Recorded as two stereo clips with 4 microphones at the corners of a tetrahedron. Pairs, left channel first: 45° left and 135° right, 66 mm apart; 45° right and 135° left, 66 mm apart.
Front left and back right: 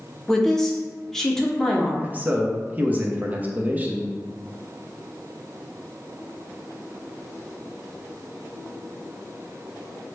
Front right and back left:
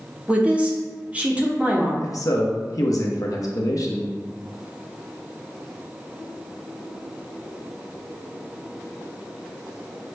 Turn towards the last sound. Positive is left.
turn(degrees=-70)